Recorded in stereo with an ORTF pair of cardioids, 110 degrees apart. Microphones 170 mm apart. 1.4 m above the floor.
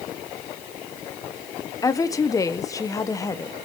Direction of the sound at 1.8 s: 20° left.